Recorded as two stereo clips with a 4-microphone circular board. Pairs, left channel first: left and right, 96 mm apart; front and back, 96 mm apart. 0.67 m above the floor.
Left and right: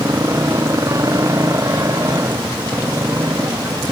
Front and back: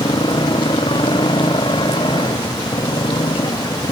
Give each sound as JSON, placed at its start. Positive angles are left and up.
{"t": 0.0, "sound": "a motorcycle", "azimuth_deg": -35}